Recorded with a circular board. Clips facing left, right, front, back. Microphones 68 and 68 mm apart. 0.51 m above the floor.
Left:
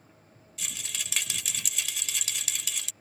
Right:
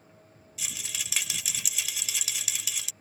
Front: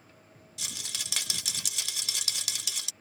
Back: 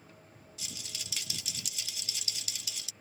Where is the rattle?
Straight ahead.